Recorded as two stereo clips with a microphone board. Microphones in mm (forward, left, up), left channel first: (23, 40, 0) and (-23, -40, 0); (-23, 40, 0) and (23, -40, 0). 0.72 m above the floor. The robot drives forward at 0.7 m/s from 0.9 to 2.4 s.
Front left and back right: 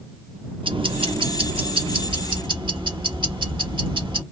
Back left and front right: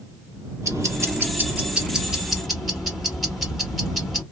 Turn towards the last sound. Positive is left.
turn(degrees=-150)